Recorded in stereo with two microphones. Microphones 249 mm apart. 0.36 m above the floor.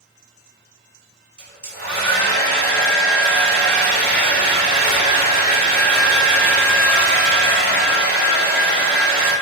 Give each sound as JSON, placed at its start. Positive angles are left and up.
{"t": 1.4, "sound": "a hair dryer", "side_deg": 40, "distance_m": 2.0}